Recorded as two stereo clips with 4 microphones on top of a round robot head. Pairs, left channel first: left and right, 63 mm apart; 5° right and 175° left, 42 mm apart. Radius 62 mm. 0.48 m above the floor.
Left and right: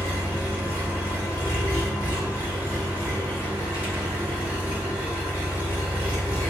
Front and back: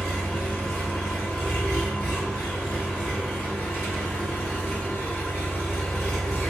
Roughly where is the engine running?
Ahead left.